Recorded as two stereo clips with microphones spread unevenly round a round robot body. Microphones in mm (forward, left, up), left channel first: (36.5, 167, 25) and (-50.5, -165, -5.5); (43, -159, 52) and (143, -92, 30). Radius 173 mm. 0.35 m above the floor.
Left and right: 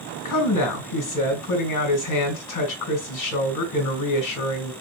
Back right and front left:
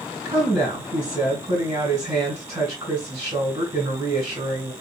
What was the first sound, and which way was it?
A woman speaking, 95° left.